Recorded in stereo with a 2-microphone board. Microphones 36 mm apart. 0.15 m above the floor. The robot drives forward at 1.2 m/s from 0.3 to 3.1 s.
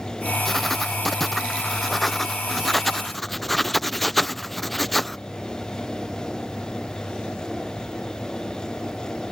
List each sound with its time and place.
0.5 s writing: 5° left (ahead or behind)